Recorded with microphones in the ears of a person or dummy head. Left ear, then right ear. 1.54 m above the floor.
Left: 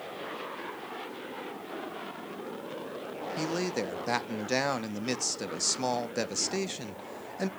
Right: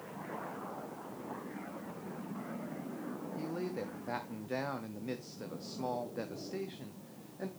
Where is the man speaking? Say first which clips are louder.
Left 8 dB; 60° left (ahead or behind), 0.6 m.